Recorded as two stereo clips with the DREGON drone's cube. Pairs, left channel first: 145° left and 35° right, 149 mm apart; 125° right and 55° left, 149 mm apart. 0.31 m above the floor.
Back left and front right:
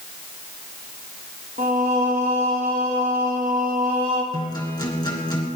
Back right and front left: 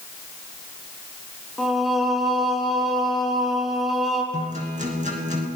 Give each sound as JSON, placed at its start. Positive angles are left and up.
{"t": 1.6, "sound": "singing", "azimuth_deg": -35, "distance_m": 4.0}
{"t": 4.3, "sound": "a guitar", "azimuth_deg": 85, "distance_m": 3.0}